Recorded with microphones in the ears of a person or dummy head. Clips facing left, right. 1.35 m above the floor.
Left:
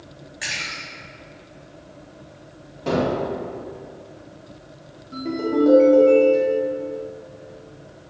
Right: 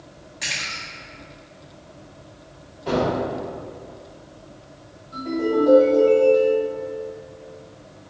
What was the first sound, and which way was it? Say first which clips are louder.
A splash: right 1 dB; 10° left (ahead or behind).